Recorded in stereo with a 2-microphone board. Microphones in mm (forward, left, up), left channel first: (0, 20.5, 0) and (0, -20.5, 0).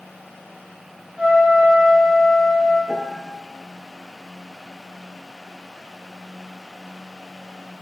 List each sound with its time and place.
1.2 s a trumpet: 20° right (ahead or behind), 4.5 m
2.9 s a piano: 15° left (ahead or behind), 1.0 m